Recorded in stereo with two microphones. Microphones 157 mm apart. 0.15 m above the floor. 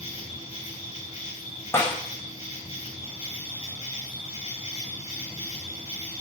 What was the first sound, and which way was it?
An insect, 40° left (ahead or behind).